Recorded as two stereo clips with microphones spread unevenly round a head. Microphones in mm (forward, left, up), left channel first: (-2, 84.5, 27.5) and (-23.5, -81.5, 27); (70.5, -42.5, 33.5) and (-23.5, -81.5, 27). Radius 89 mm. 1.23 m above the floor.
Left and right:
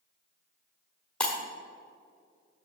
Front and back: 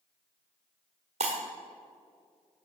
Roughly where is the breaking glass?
Behind.